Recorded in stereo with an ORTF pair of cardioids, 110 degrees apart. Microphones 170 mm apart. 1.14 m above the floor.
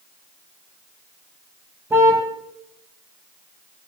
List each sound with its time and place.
1.9 s a car horn: 15° right, 3.5 m